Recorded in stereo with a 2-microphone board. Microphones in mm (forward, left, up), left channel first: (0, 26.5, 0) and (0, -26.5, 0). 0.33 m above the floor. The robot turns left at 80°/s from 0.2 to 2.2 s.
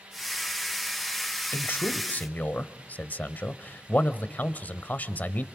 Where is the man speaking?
110° left, 1.2 m; by 5.5 s 55° left, 1.2 m.